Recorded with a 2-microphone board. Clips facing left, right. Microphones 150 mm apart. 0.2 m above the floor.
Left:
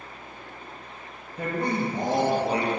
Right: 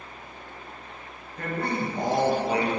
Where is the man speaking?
10° left (ahead or behind), 3.5 m; by 2.7 s 35° left (ahead or behind), 4 m.